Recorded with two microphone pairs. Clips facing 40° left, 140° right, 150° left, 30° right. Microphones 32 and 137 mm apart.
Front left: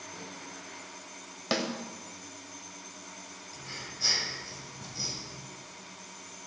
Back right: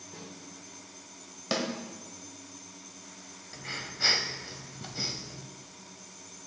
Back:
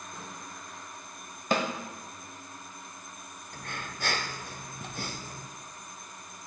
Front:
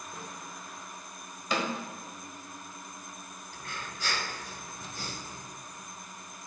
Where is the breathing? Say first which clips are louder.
Back right 5 dB, back 2 dB; 175° left, 0.7 m.